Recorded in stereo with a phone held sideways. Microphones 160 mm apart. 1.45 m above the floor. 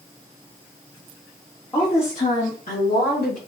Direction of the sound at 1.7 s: 30° left (ahead or behind).